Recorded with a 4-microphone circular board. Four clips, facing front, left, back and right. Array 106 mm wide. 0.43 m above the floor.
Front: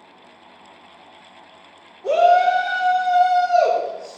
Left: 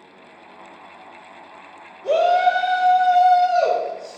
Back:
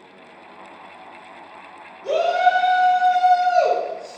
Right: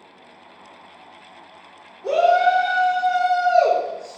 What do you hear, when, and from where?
2.0 s a shout: 55° right, 1.2 m; by 4.2 s 135° right, 1.4 m